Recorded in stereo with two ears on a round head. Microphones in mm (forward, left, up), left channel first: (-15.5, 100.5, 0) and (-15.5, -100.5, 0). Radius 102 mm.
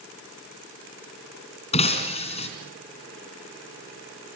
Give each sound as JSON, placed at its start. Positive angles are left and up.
{"t": 1.7, "sound": "breaking glass", "side_deg": 25, "distance_m": 3.5}